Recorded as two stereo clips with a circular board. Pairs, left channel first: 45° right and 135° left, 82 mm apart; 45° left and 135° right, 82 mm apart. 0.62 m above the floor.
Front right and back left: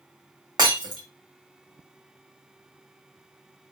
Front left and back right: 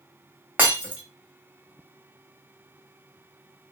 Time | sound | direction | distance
0.6 | breaking glass | 155° left | 1.2 m